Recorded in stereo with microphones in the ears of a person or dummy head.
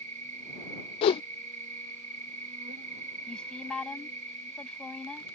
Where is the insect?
40° right (ahead or behind).